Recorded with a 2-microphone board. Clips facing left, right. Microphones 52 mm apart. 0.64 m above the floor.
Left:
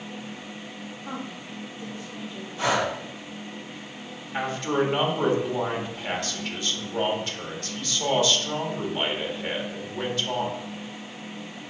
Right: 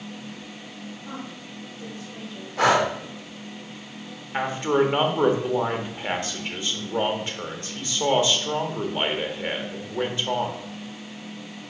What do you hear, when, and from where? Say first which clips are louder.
1.0 s a woman speaking: left 3 dB; 25° left (ahead or behind), 1.6 m; by 2.5 s 10° right (ahead or behind), 3 m
2.6 s breathing: right 5 dB; 75° right (ahead or behind), 1.1 m
4.3 s a man speaking: right 3 dB; 25° right (ahead or behind), 1.5 m